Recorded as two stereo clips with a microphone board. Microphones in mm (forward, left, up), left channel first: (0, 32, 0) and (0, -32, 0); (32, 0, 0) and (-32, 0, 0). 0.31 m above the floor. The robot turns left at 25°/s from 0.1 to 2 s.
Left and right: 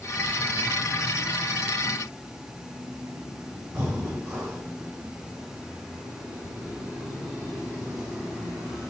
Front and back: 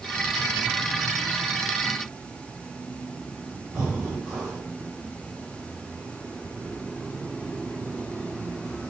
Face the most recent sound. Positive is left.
turn(degrees=-135)